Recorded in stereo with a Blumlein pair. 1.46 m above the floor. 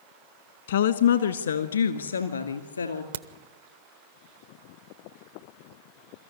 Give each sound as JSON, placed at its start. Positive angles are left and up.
{"t": 0.7, "sound": "a woman speaking", "azimuth_deg": 60, "distance_m": 1.3}
{"t": 3.1, "sound": "a crack", "azimuth_deg": -65, "distance_m": 0.8}